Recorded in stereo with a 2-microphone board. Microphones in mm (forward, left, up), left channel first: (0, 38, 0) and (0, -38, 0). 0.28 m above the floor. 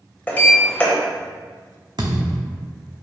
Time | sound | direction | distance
0.3 | a sliding door | 20° left (ahead or behind) | 0.7 m
2.0 | a thud | 75° right (ahead or behind) | 0.8 m